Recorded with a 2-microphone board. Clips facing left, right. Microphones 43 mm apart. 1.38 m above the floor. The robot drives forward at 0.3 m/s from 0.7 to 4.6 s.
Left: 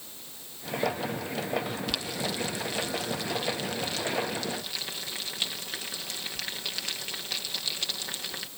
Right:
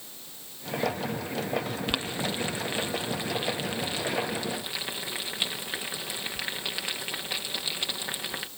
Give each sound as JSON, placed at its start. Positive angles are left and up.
{"t": 1.9, "sound": "boiling", "side_deg": -35}